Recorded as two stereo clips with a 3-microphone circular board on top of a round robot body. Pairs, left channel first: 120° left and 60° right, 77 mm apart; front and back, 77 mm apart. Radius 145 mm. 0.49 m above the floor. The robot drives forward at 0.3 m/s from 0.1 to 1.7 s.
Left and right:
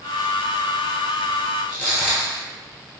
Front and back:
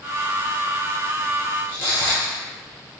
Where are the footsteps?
45° left, 0.7 m.